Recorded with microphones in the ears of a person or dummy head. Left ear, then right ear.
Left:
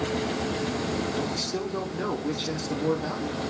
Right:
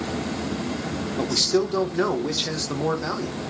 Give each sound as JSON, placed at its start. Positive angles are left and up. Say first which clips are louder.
{"t": 1.2, "sound": "a man speaking", "louder": "right 8 dB", "side_deg": -75, "distance_m": 0.9}